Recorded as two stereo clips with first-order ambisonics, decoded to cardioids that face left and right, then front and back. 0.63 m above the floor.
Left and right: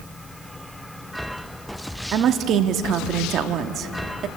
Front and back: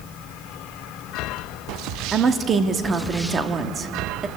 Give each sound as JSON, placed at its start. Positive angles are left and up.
{"t": 2.1, "sound": "a woman speaking", "azimuth_deg": -125, "distance_m": 1.1}